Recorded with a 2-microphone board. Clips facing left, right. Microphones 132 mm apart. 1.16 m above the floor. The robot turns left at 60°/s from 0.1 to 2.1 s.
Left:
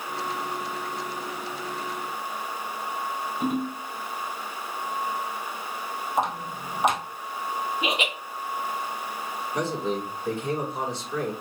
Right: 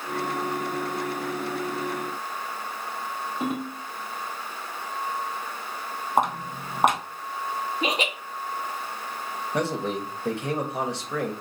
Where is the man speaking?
70° right (ahead or behind), 1.4 m.